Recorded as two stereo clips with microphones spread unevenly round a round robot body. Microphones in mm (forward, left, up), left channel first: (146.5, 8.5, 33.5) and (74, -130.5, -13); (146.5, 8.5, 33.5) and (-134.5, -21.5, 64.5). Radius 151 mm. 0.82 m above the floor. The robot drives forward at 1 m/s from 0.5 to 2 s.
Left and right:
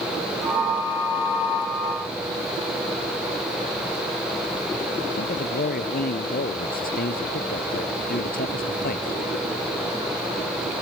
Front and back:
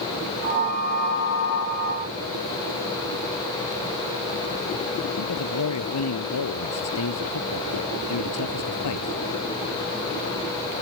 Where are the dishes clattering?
I don't hear dishes clattering.